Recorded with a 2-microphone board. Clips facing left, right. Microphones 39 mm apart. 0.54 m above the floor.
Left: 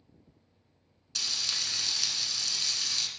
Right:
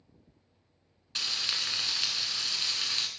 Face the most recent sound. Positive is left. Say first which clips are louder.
# right 2 dB
turn(degrees=-30)  # may be behind; listen again after turning